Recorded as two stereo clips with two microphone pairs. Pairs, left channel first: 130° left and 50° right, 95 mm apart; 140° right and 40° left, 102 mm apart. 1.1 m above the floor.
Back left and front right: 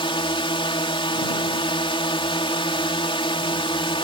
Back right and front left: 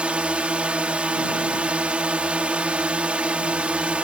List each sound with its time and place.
0.0 s a drone: 120° left